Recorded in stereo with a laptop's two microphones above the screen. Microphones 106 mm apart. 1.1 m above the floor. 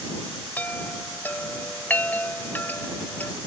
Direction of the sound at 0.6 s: 15° left (ahead or behind).